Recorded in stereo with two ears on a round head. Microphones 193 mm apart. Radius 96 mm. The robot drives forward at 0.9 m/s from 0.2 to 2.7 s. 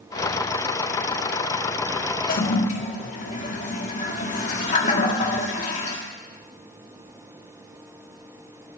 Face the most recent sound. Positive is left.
turn(degrees=35)  # may be behind; listen again after turning